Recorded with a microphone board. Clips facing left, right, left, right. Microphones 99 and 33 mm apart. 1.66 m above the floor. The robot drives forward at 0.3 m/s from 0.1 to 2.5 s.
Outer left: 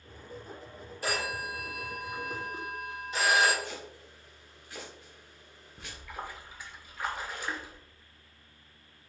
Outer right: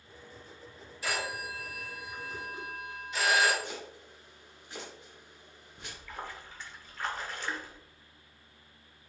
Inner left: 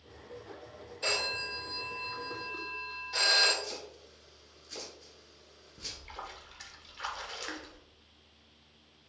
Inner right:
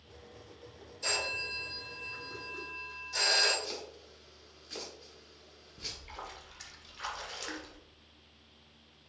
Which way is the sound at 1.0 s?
45° left (ahead or behind).